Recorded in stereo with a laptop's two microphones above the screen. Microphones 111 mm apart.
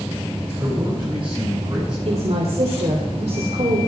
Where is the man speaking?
45° right (ahead or behind), 7 m.